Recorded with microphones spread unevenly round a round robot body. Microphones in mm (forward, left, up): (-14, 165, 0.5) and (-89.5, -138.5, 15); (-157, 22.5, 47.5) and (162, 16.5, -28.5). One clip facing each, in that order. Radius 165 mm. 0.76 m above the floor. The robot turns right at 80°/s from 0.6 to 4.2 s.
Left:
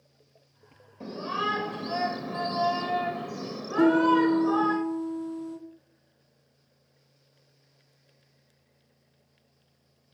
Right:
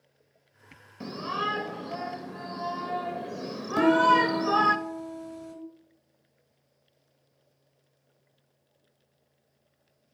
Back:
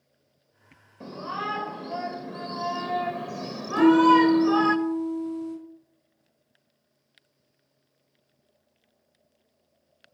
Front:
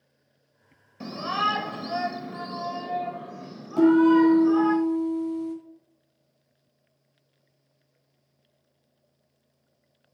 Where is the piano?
90° right, 7.5 m; by 5.5 s 55° right, 7.5 m.